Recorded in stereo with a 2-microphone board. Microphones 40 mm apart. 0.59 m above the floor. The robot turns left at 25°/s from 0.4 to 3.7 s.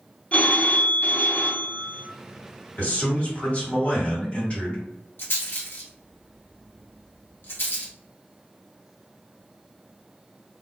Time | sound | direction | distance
0.3 | a phone ringing | 135° left | 0.7 m
2.8 | a man speaking | 50° left (ahead or behind) | 1.9 m
5.2 | a rattle | 60° left (ahead or behind) | 0.9 m